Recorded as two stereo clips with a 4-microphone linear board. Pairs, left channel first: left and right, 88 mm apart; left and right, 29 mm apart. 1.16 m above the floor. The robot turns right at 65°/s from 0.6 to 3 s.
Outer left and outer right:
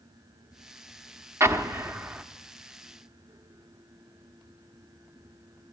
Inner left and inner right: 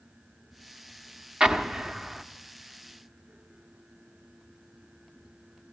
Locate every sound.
1.4 s an explosion: 90° right, 0.8 m; by 2.2 s 35° right, 0.8 m